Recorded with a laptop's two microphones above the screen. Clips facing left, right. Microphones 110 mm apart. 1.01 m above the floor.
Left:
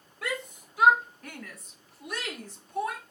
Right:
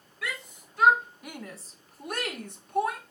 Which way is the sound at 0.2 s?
25° left (ahead or behind).